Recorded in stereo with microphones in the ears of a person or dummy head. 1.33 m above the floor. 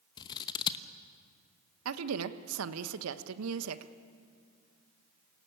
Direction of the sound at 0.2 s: 15° left (ahead or behind).